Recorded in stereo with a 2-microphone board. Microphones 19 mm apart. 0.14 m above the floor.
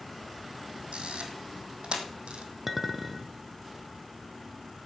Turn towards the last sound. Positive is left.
turn(degrees=-15)  # may be behind; listen again after turning